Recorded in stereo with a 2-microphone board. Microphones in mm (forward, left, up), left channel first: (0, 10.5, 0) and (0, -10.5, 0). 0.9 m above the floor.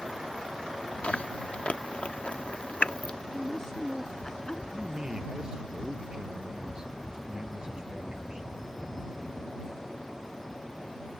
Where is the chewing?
65° left (ahead or behind).